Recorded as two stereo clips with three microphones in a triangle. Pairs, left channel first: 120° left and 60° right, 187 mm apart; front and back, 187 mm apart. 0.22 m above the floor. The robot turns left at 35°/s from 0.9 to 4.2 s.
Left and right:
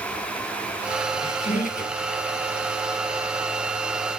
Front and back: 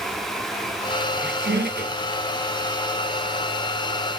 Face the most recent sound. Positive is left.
turn(degrees=75)